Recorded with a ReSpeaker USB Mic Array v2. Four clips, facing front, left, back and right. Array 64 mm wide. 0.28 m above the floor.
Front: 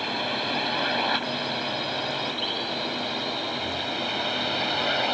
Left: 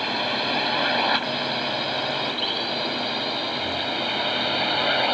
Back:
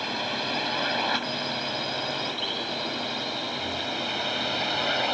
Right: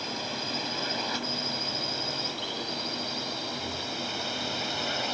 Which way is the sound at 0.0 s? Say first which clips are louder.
Left 9 dB, front 2 dB; 85° left.